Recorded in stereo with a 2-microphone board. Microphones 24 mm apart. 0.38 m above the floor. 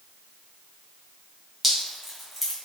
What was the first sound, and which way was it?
Dripping, 5° left (ahead or behind).